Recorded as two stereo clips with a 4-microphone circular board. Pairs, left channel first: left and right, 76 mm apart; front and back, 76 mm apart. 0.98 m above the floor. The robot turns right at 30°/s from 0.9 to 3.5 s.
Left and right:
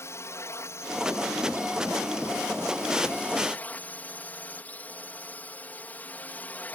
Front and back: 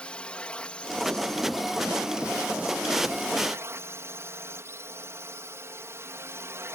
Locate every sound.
0.0 s a drone: 70° left; by 6.8 s 150° left